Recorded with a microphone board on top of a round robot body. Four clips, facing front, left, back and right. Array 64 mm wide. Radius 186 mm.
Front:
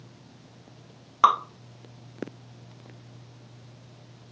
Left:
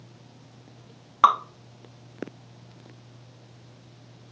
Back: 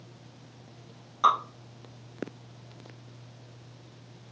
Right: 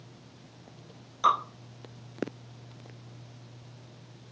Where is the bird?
I don't hear a bird.